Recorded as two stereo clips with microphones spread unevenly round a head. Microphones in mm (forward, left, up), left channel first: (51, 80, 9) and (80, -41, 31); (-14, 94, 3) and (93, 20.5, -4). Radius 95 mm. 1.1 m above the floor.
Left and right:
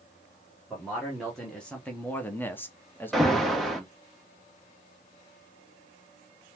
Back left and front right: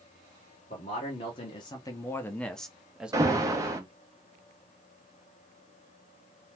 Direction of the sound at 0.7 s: 175° right.